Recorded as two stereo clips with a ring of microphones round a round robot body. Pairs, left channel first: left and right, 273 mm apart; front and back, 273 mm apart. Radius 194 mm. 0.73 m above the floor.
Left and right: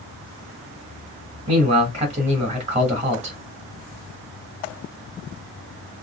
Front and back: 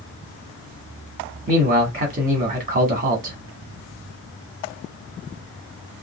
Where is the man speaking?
140° right, 1.1 m.